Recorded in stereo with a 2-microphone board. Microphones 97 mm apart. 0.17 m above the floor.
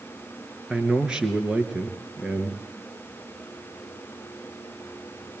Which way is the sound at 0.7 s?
5° right (ahead or behind).